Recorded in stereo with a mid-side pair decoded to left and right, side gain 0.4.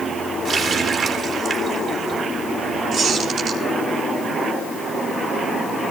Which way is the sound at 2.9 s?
65° right.